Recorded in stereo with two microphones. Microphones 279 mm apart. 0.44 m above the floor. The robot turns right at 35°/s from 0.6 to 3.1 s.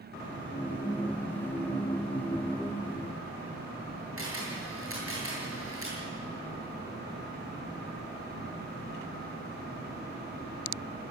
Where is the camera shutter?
50° right (ahead or behind), 9 m.